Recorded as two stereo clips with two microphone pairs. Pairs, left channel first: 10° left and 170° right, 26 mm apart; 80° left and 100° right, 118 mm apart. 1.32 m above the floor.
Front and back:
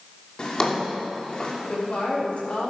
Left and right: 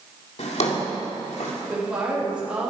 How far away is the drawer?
About 2.5 m.